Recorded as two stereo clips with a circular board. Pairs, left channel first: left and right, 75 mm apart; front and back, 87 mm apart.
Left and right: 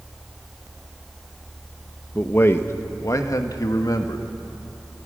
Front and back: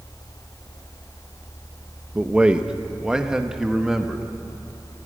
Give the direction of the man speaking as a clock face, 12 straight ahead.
8 o'clock.